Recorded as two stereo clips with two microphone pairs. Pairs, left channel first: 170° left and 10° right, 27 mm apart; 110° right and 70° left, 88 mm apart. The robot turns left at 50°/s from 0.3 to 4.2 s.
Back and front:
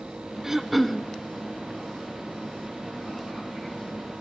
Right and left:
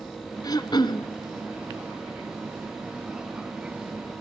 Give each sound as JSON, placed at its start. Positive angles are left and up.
{"t": 0.4, "sound": "throat clearing", "azimuth_deg": -80, "distance_m": 1.1}